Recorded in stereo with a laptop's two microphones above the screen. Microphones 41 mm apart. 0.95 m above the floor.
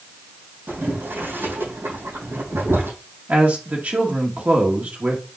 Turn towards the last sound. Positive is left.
turn(degrees=-40)  # may be behind; listen again after turning